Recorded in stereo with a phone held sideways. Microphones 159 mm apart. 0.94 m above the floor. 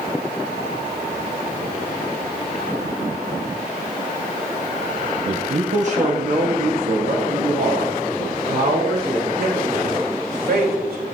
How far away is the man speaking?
About 1.2 m.